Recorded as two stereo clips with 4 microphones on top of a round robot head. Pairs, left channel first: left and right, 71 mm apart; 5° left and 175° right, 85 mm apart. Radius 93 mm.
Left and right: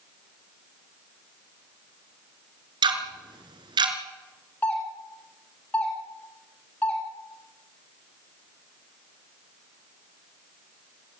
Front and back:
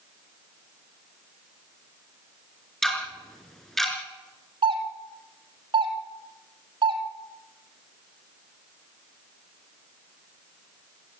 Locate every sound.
2.8 s ticking: 85° right, 3.5 m
4.6 s a doorbell: 165° left, 4.5 m